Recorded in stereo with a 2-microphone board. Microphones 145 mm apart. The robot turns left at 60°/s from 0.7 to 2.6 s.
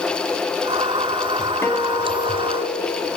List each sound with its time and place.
1.6 s a guitar: 165° left, 2.5 m; by 3.1 s 105° left, 2.5 m